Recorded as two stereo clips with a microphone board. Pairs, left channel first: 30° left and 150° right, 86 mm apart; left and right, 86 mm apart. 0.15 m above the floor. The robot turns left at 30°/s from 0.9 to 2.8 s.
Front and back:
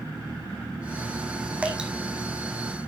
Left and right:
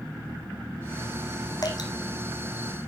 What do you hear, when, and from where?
1.6 s dripping: 135° left, 1.3 m; by 1.9 s 125° left, 1.3 m